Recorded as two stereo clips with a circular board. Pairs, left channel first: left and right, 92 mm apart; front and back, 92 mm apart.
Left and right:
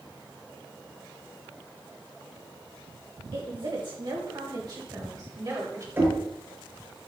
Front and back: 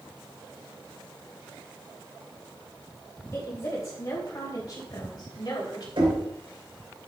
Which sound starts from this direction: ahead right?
A woman speaking, at 3.3 s.